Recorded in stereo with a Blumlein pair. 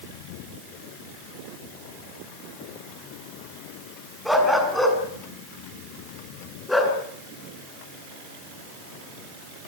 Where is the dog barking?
Straight ahead, 5.5 m; by 7.0 s 5° left, 7 m.